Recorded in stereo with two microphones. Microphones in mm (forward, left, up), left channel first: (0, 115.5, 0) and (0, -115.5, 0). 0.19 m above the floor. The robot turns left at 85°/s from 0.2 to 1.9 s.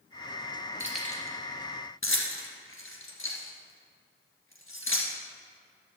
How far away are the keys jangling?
About 2 m.